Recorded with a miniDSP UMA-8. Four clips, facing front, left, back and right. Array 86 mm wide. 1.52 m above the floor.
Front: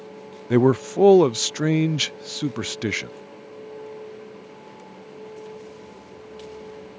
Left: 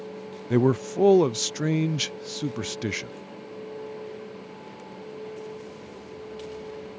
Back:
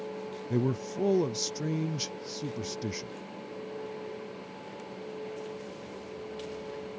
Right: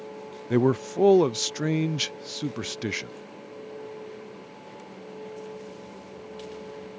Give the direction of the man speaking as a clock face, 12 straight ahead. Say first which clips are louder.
Left 1 dB, front 13 dB; 12 o'clock.